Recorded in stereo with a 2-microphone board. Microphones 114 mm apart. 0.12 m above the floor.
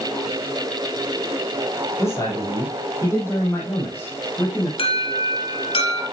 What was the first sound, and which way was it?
A man speaking, 25° left (ahead or behind).